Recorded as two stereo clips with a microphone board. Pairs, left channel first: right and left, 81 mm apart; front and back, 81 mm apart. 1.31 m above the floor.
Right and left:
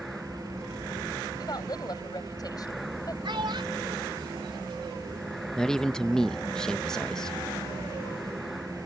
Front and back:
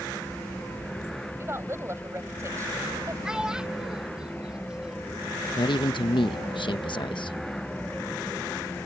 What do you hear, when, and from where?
1.4 s a woman speaking: 125° right; by 3.1 s 130° right
3.2 s a child speaking: 100° left
5.6 s a man speaking: 5° right